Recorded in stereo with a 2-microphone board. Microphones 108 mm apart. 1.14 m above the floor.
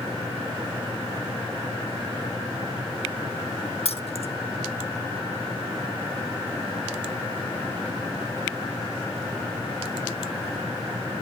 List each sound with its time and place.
3.9 s keys jangling: 65° left (ahead or behind), 1.2 m